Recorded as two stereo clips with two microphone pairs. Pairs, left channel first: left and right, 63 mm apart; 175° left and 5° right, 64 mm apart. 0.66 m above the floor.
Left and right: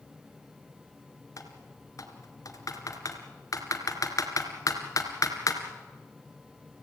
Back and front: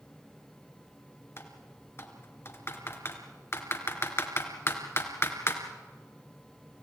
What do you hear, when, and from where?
1.4 s typing on a keyboard: 125° left, 2.5 m